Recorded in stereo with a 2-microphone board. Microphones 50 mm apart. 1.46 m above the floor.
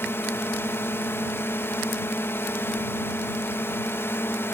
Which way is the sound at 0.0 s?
60° left (ahead or behind).